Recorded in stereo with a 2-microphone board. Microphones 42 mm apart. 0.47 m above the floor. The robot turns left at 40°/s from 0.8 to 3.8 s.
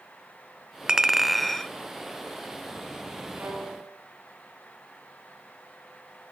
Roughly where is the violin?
Right.